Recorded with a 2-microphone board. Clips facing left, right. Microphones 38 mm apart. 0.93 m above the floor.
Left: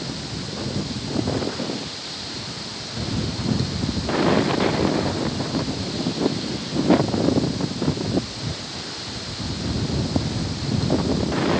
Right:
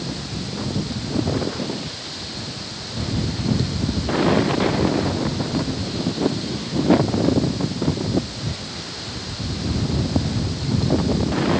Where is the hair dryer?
No hair dryer in this recording.